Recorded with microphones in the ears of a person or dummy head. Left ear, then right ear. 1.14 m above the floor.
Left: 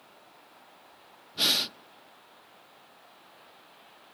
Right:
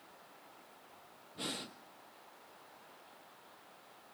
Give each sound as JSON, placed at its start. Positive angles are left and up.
{"t": 1.4, "sound": "breathing", "side_deg": 50, "distance_m": 0.6}